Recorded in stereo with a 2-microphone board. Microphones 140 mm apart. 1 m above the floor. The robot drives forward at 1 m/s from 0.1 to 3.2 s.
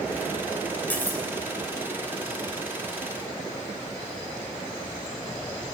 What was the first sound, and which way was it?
Cutlery clinking, 10° left (ahead or behind).